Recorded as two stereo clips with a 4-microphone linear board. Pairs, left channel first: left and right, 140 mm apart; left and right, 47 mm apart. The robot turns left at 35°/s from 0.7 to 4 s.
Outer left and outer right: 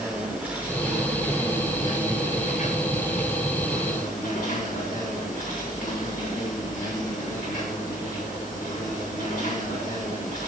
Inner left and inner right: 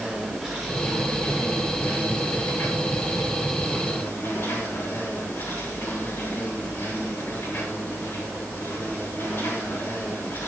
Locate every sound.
0.0 s an insect: 170° right, 6.5 m; by 10.5 s 75° left, 6.5 m